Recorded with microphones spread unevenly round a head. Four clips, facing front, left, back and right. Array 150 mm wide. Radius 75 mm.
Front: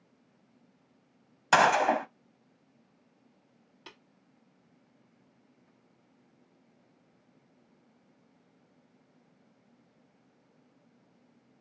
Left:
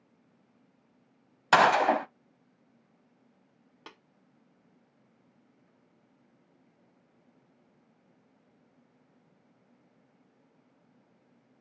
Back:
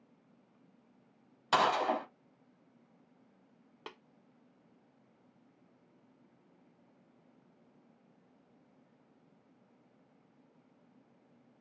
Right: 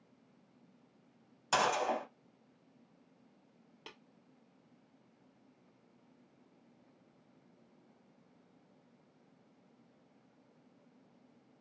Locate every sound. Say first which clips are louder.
1.5 s a gunshot: left 10 dB, front 6 dB; 60° left, 0.7 m
3.9 s tapping: left 4 dB, back 4 dB; 165° left, 1.2 m